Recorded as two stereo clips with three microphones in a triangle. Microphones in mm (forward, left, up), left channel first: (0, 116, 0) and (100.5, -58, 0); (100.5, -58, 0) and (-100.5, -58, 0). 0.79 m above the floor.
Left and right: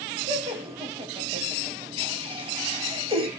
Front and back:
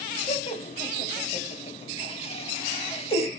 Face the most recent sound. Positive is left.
turn(degrees=-25)